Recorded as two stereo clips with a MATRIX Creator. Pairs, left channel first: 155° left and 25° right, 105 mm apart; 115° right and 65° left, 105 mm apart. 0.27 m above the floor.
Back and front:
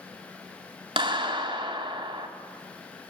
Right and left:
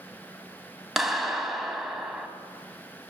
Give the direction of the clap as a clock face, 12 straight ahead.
1 o'clock.